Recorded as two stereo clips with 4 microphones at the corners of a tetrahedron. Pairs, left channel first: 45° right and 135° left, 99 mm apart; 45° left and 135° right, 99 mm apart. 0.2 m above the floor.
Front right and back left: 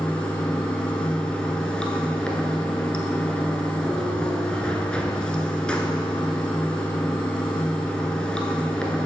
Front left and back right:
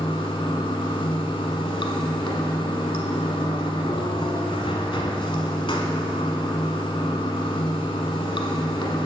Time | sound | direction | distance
0.0 | running water | 35° left | 0.9 m